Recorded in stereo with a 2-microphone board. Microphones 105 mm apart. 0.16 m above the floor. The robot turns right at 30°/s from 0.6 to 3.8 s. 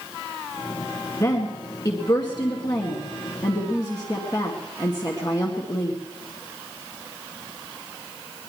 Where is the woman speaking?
30° left (ahead or behind), 2 m; by 6.0 s 40° left (ahead or behind), 2 m.